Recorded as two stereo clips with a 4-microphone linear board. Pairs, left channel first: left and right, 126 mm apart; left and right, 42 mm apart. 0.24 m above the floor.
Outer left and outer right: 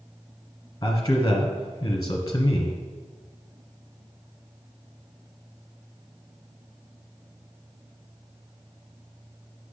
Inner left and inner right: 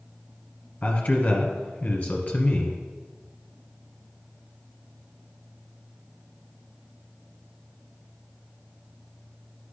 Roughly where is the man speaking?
Left.